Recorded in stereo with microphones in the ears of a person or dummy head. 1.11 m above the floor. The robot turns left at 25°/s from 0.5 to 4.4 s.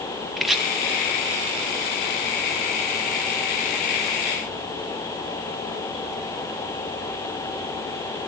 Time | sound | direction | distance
0.4 | chopping | centre (ahead or behind) | 1.4 m